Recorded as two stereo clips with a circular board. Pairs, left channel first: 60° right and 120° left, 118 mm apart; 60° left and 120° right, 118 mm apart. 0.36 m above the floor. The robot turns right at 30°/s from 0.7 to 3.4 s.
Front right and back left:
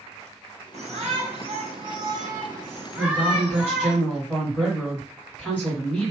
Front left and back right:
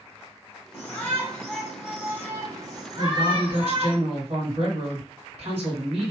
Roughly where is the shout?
Behind left.